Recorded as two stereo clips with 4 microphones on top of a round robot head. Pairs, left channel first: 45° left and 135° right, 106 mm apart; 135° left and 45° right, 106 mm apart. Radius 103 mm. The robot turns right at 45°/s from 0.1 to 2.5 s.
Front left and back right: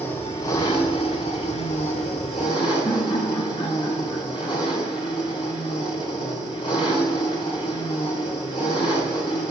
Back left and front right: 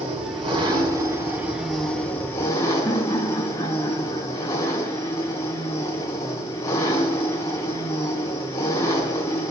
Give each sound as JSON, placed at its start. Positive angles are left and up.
{"t": 0.0, "sound": "an engine running", "azimuth_deg": -30, "distance_m": 4.0}
{"t": 2.9, "sound": "laughter", "azimuth_deg": 75, "distance_m": 6.0}